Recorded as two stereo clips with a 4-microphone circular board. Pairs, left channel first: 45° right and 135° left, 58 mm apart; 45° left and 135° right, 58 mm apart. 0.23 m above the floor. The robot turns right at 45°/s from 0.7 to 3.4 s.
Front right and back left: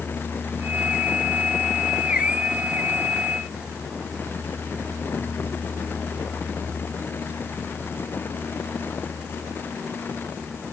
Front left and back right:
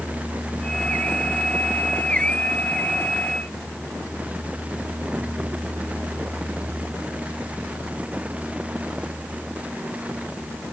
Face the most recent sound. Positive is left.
No sound to turn to.